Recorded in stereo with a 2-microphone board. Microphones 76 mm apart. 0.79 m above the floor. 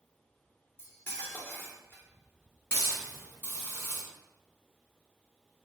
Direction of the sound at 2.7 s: 30° left (ahead or behind).